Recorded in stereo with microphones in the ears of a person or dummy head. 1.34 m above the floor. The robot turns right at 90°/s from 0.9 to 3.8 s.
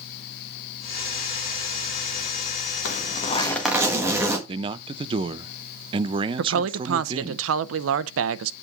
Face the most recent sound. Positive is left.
turn(degrees=-75)  # may be behind; listen again after turning